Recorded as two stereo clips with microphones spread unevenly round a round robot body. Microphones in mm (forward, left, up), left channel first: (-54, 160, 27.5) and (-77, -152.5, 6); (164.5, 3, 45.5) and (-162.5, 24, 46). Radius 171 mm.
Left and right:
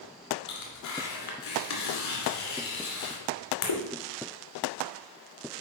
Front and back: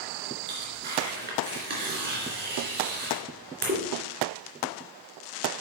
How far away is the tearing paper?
About 2.5 m.